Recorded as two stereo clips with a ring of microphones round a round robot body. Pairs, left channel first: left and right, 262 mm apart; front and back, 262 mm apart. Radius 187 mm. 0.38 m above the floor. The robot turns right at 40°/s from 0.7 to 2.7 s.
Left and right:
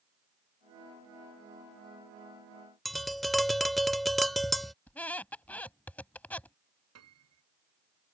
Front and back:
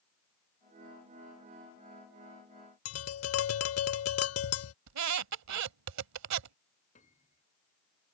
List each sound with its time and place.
2.9 s tapping: straight ahead
4.9 s a squeak: 175° left
7.0 s a piano: 70° right